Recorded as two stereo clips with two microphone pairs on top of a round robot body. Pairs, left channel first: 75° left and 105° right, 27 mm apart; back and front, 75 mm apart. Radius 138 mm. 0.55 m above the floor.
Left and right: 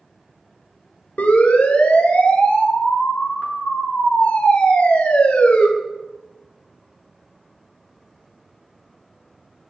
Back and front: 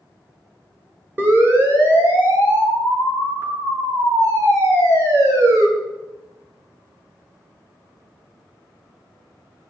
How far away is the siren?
About 9 m.